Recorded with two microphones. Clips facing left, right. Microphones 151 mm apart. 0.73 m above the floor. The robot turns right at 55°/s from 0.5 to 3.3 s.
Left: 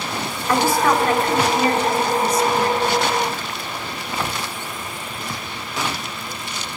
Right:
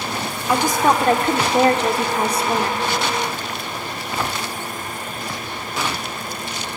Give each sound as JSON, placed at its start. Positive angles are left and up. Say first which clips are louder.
{"t": 0.5, "sound": "a woman speaking", "louder": "even", "azimuth_deg": -170, "distance_m": 1.8}